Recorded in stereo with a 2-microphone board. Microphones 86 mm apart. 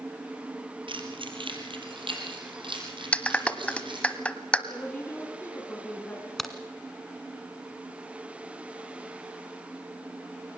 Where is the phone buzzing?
No phone buzzing in this recording.